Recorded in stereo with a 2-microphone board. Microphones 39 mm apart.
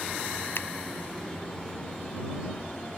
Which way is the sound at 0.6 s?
70° left (ahead or behind).